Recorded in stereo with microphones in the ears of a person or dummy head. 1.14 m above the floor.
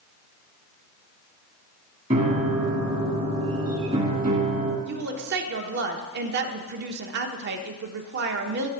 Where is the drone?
I don't hear a drone.